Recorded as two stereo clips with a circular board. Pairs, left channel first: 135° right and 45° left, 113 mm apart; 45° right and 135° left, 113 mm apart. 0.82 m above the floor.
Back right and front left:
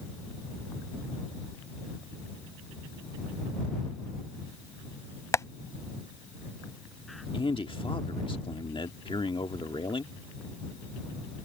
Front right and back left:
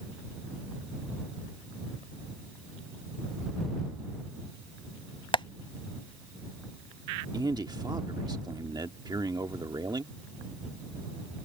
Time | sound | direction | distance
5.3 | tapping | 80° right | ?
7.3 | a man speaking | 175° right | ?